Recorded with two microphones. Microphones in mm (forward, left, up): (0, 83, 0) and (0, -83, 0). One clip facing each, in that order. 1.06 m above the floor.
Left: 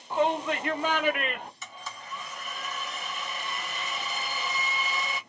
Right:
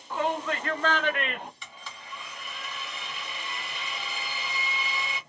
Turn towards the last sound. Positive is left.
turn(degrees=45)  # may be behind; listen again after turning